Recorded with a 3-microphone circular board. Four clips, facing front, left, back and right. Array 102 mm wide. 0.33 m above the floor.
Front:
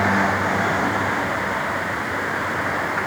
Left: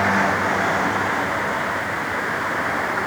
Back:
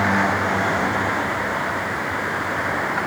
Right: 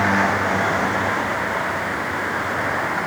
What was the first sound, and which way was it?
Only background noise.